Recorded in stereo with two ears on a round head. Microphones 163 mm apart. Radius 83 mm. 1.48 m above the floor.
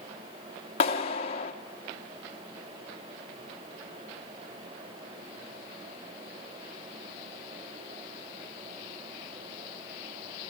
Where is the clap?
30° left (ahead or behind), 1.9 m.